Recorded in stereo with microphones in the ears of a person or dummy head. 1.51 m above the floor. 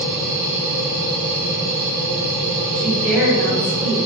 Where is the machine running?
60° right (ahead or behind), 1.4 m.